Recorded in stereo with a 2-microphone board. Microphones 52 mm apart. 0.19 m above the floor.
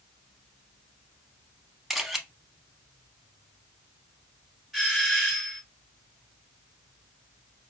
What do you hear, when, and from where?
1.9 s a camera shutter: 5° right (ahead or behind), 0.6 m
4.7 s a doorbell: 5° left (ahead or behind), 2.0 m